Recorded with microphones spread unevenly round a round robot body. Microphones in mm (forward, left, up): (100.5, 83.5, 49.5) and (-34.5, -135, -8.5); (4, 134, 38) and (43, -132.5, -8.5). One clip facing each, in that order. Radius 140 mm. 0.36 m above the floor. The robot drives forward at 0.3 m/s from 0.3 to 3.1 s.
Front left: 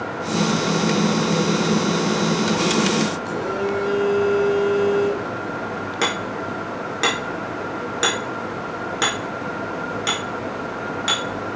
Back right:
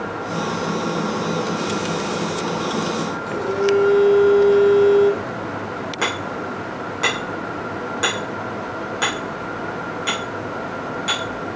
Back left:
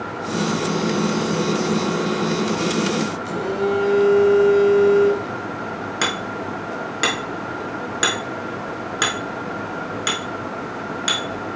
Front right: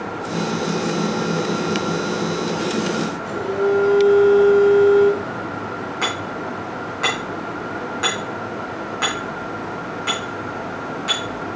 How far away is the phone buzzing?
About 4 m.